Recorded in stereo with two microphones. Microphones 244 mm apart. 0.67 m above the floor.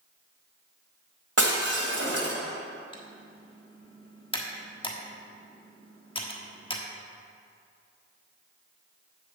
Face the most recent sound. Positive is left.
turn(degrees=20)  # may be behind; listen again after turning